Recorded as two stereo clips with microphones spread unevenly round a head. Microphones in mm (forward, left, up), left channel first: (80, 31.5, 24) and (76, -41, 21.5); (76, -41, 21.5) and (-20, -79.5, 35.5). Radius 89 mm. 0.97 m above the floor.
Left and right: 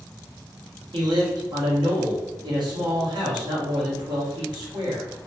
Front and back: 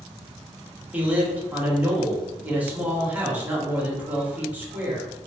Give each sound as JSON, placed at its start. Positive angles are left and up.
{"t": 0.9, "sound": "a man speaking", "azimuth_deg": -80, "distance_m": 1.1}